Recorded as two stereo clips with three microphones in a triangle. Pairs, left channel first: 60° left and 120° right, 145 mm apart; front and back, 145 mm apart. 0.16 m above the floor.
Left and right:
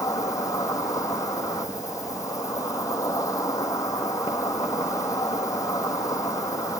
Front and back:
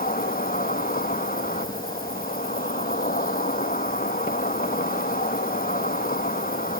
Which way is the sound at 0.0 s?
5° right.